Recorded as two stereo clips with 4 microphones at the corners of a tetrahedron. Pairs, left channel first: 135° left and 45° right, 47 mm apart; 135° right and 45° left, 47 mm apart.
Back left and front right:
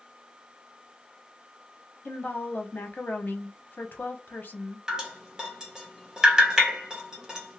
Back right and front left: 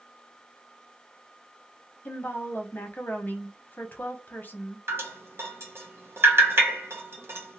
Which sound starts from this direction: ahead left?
Dripping, at 4.9 s.